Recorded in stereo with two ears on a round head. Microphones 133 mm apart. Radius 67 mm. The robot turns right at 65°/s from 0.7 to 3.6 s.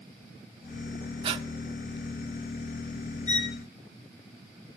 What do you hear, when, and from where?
1.2 s breathing: 35° right (ahead or behind), 0.9 m; by 1.5 s 45° right (ahead or behind), 0.9 m
3.3 s a violin: 50° left (ahead or behind), 1.7 m; by 3.6 s 30° left (ahead or behind), 1.7 m